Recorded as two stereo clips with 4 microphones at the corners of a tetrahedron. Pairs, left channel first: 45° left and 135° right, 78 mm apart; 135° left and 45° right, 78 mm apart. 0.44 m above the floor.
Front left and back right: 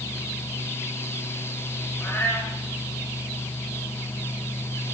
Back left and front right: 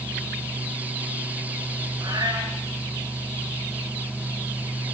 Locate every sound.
2.0 s a cat meowing: 20° right, 8 m